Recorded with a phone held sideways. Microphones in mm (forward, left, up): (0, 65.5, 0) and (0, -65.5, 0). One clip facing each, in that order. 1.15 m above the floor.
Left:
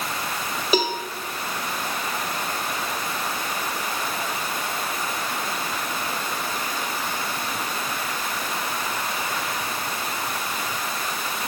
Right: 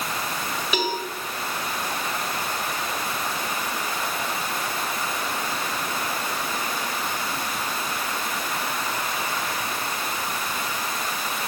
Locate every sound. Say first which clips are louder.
0.7 s a cowbell: left 4 dB; 35° left (ahead or behind), 1.9 m